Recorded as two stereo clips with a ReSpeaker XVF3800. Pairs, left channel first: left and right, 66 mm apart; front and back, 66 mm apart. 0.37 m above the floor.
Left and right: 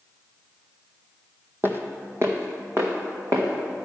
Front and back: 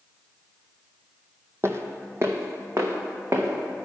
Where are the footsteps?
140° right, 0.8 m; by 3.9 s 130° right, 2.0 m.